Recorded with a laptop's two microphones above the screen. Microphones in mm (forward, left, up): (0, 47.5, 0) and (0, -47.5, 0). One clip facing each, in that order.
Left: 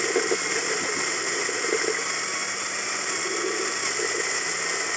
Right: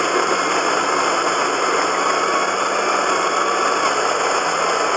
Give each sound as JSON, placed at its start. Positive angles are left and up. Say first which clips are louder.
{"t": 0.0, "sound": "a machine running", "louder": "right 7 dB", "side_deg": -55}